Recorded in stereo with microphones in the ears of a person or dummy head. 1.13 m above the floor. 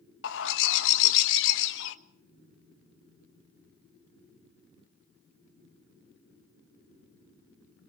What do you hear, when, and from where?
0.2 s a bird: 65° left (ahead or behind), 1.2 m